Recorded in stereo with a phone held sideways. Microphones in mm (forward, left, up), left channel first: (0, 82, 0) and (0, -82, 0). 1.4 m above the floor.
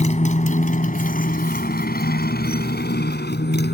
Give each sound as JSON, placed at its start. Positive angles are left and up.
{"t": 0.0, "sound": "a motorcycle", "side_deg": 40}